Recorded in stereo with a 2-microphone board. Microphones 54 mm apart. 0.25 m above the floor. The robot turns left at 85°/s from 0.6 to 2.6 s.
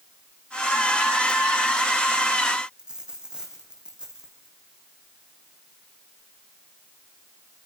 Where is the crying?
No crying in this recording.